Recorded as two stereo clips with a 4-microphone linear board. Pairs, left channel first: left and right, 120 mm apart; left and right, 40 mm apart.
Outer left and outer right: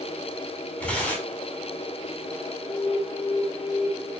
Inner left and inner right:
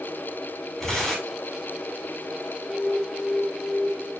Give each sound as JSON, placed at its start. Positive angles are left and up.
{"t": 0.8, "sound": "tearing paper", "side_deg": 10, "distance_m": 4.5}
{"t": 2.6, "sound": "an alarm", "side_deg": 65, "distance_m": 2.0}